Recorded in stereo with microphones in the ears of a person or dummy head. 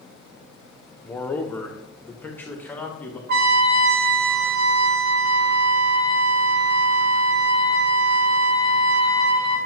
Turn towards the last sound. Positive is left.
turn(degrees=-65)  # may be behind; listen again after turning